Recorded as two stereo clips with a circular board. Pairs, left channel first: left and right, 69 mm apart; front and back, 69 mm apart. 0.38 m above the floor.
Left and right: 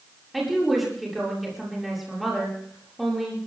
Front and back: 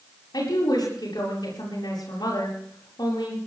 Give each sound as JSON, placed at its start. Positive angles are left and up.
{"t": 0.3, "sound": "a woman speaking", "azimuth_deg": -5, "distance_m": 8.0}